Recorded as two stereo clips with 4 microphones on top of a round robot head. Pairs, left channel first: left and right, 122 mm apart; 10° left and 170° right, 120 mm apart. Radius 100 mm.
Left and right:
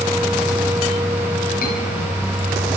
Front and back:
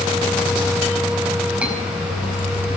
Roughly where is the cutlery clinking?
Left.